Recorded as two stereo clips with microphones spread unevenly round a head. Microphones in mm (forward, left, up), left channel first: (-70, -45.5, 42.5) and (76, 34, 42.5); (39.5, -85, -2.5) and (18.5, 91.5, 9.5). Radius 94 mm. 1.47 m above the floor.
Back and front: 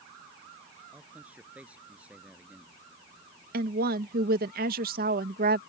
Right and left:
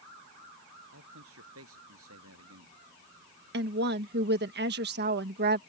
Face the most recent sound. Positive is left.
turn(degrees=65)